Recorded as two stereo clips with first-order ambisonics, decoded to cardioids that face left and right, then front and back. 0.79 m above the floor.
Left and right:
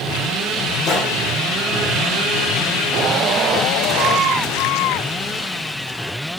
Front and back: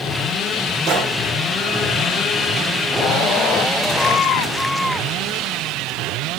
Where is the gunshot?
135° left, 2.5 m.